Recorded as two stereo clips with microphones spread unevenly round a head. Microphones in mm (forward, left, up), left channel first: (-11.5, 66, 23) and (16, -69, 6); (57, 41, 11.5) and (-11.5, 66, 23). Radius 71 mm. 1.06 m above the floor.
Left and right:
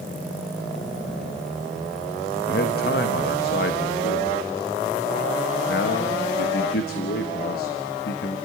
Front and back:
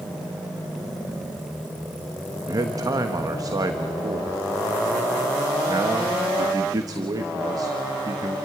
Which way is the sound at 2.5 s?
120° left.